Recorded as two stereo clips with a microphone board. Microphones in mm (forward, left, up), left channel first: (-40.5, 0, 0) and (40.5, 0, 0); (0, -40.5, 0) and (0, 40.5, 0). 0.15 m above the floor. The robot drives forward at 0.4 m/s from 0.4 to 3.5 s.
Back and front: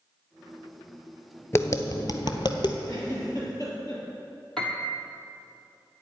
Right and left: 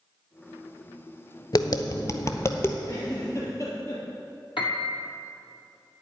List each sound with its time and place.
1.5 s tapping: 125° right, 0.5 m; by 2.8 s 150° right, 0.9 m
2.9 s a giggle: 135° right, 3 m; by 4.0 s 140° right, 3 m
4.6 s a piano: 95° right, 1.1 m